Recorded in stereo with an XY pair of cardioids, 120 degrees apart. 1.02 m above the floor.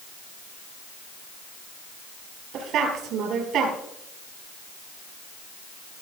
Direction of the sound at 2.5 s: 70° right.